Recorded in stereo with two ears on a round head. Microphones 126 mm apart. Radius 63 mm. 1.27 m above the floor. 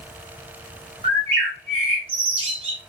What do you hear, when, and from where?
1.0 s a bird: 40° right (ahead or behind), 2 m